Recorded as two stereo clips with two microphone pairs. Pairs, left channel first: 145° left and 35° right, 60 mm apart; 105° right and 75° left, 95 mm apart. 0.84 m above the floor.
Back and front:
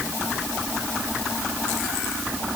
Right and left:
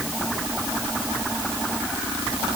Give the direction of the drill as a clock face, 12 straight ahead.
No drill in this recording.